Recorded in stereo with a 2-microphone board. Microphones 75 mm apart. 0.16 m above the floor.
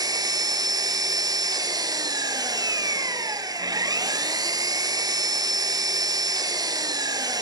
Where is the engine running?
55° right (ahead or behind), 0.8 m.